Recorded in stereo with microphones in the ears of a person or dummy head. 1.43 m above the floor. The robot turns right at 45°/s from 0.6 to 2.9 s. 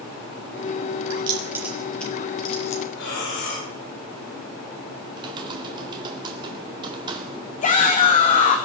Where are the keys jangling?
30° right (ahead or behind), 3.5 m; by 2.8 s 45° left (ahead or behind), 3.5 m.